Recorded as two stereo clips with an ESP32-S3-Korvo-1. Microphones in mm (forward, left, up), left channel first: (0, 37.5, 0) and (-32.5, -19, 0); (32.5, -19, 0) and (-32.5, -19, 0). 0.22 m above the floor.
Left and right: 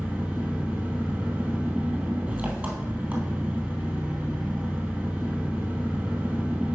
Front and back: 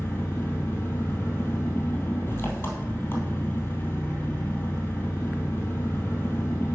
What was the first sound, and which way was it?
An engine running, 55° right.